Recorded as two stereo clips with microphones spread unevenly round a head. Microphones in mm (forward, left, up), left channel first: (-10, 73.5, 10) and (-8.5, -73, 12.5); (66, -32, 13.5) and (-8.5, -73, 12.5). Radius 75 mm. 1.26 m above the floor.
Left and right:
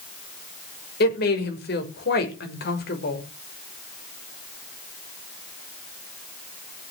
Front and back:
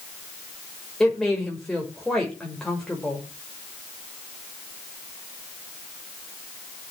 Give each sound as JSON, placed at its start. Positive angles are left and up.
{"t": 1.0, "sound": "a woman speaking", "azimuth_deg": 115, "distance_m": 6.0}